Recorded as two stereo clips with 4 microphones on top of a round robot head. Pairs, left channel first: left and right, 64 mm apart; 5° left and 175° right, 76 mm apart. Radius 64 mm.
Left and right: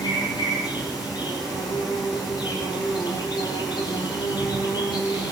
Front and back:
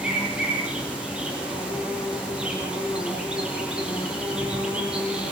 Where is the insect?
110° left, 9 m.